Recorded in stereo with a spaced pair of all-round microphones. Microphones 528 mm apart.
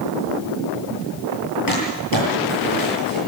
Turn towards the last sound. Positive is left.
turn(degrees=40)  # may be behind; listen again after turning